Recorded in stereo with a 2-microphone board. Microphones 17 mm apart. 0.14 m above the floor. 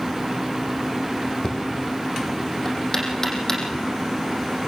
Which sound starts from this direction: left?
Knocking, at 1.4 s.